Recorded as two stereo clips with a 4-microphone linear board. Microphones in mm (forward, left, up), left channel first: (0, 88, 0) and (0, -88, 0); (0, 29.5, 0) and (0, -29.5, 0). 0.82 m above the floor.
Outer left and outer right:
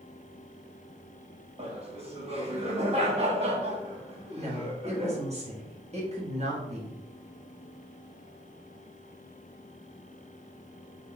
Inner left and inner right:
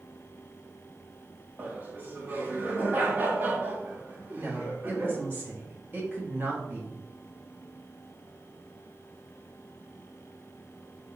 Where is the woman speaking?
40° right (ahead or behind), 1.4 m.